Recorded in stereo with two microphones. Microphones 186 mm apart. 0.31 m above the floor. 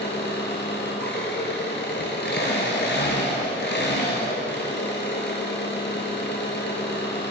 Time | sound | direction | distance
0.0 | an engine running | 70° left (ahead or behind) | 2 m